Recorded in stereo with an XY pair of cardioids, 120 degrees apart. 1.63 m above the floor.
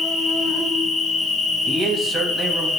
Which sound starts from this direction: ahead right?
A man speaking, at 1.7 s.